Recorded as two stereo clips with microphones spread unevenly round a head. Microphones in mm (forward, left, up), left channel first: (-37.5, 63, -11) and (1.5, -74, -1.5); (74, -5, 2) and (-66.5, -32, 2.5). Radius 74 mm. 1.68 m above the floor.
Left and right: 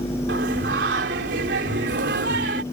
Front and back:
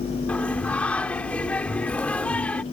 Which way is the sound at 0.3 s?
70° right.